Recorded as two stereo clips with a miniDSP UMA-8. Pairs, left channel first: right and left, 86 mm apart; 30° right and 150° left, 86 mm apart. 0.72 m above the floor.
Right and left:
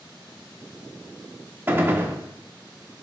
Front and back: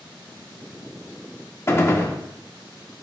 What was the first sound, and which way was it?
A gunshot, 30° left.